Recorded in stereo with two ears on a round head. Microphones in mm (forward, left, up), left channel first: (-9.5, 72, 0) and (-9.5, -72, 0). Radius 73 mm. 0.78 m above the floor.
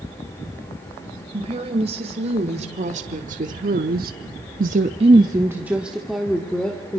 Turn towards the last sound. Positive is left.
turn(degrees=10)  # may be behind; listen again after turning